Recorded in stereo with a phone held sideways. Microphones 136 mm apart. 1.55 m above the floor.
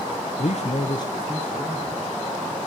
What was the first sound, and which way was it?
A man speaking, 50° left (ahead or behind).